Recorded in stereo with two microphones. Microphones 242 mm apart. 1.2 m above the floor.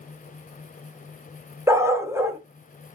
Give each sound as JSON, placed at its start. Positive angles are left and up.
{"t": 1.7, "sound": "a dog barking", "side_deg": -10, "distance_m": 0.6}